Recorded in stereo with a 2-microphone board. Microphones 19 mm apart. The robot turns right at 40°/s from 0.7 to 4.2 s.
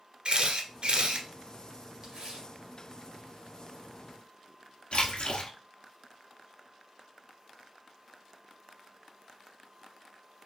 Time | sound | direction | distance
0.2 | a camera shutter | 55° right (ahead or behind) | 1.0 m
2.0 | tearing paper | 35° right (ahead or behind) | 2 m
4.9 | a splash | 70° left (ahead or behind) | 1.1 m